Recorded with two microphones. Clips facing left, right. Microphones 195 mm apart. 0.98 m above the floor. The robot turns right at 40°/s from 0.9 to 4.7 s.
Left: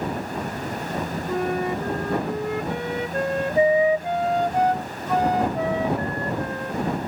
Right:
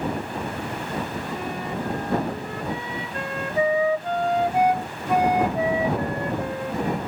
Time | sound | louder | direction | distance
1.3 | a flute | left 6 dB | 55° left | ?